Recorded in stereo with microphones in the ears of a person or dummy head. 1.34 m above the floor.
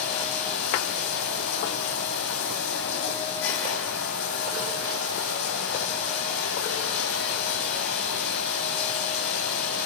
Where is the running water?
70° left (ahead or behind), 3 m.